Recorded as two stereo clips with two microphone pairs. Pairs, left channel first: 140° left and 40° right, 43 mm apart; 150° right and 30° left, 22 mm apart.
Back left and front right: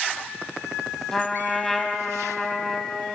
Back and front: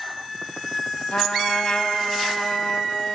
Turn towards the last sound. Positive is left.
turn(degrees=-140)